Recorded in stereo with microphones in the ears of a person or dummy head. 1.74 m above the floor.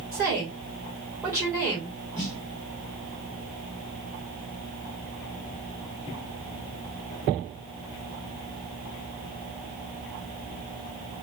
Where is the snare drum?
15° left (ahead or behind), 1.3 m.